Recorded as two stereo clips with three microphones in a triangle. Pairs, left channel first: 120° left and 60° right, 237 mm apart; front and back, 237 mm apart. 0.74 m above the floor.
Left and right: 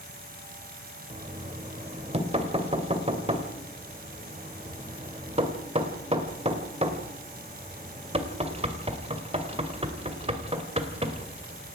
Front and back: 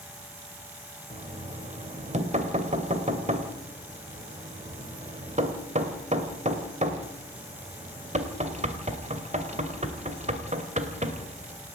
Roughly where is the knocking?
Behind right.